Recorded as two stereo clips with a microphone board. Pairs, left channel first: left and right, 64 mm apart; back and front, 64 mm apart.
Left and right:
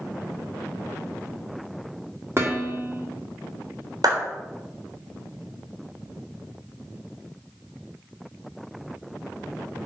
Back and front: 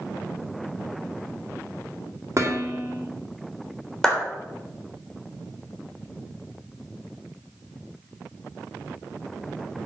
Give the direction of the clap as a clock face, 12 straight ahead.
3 o'clock.